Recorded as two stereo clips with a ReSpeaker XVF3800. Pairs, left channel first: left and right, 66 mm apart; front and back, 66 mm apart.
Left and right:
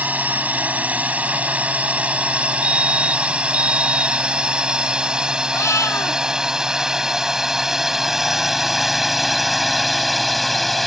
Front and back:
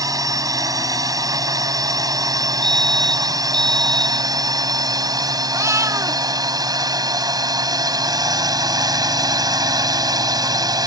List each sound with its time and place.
0.0 s a drone: 155° right; by 10.9 s straight behind
2.6 s a fire alarm: 80° left
5.5 s a cat meowing: 135° left